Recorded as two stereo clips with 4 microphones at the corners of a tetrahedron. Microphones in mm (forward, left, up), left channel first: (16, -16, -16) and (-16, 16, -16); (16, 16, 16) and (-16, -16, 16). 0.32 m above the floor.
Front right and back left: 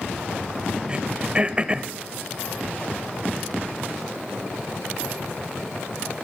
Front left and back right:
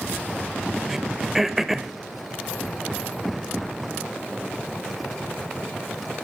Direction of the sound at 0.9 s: 150° left.